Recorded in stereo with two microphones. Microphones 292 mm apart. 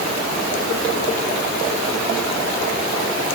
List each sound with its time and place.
Only background noise.